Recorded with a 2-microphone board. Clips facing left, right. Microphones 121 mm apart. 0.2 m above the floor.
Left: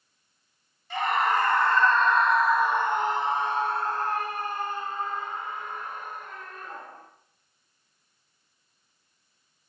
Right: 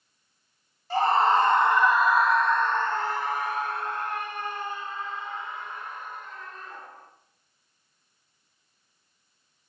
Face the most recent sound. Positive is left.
turn(degrees=50)  # may be behind; listen again after turning